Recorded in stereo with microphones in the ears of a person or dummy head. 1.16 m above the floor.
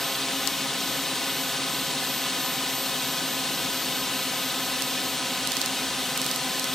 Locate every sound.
0.0 s a drone: 5° left (ahead or behind)